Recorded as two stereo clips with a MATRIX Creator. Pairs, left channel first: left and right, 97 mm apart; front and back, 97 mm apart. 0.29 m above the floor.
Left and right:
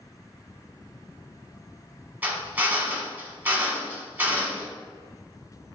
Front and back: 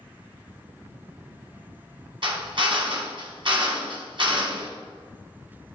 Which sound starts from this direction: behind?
A drill, at 2.2 s.